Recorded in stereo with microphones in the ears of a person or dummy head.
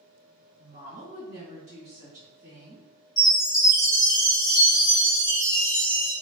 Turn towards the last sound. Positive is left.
turn(degrees=25)  # may be behind; listen again after turning